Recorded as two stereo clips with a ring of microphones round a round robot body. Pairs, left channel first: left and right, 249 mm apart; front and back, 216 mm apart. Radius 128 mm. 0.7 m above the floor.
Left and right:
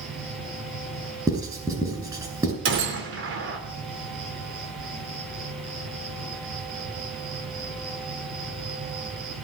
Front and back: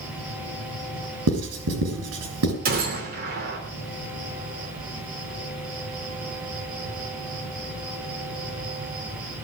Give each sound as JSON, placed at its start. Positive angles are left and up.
{"t": 0.0, "sound": "an insect", "azimuth_deg": -105, "distance_m": 7.0}
{"t": 1.3, "sound": "writing", "azimuth_deg": -165, "distance_m": 4.5}
{"t": 2.6, "sound": "a gunshot", "azimuth_deg": -130, "distance_m": 3.0}